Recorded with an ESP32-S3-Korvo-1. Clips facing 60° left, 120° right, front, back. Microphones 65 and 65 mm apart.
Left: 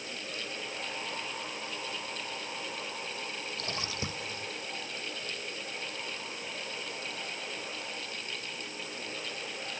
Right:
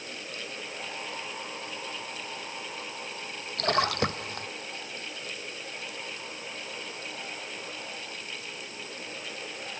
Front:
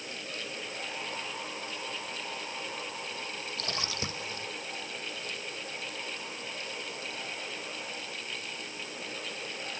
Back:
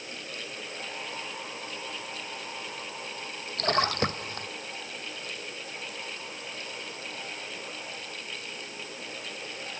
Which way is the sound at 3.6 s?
145° right.